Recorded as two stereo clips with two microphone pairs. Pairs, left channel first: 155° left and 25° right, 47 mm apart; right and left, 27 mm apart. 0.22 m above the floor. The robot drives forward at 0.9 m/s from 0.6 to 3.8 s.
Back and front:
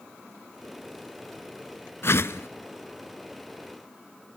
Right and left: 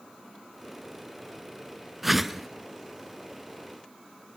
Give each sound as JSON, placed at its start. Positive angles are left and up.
{"t": 2.0, "sound": "a whoosh", "azimuth_deg": 175, "distance_m": 0.5}